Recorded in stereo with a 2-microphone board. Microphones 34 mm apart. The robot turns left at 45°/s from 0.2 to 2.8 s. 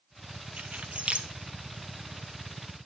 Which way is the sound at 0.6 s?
50° right (ahead or behind).